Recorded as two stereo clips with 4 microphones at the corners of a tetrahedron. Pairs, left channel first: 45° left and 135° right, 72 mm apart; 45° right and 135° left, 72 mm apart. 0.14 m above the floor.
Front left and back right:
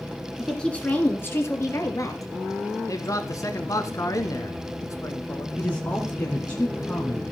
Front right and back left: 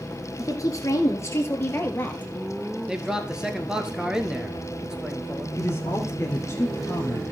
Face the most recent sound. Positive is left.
turn(degrees=-15)